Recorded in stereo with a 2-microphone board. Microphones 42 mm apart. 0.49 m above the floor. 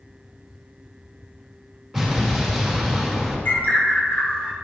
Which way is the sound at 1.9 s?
5° left (ahead or behind).